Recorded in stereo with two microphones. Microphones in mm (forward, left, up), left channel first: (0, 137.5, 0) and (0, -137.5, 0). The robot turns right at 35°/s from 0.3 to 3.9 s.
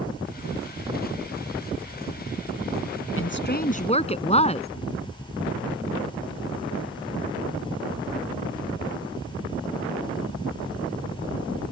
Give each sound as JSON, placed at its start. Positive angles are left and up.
{"t": 3.2, "sound": "a woman speaking", "side_deg": 50}